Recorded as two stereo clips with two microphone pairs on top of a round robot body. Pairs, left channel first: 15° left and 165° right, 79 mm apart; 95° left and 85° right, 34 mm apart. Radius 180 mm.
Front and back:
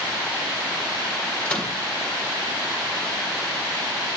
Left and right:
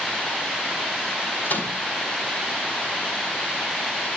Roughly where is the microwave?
Left.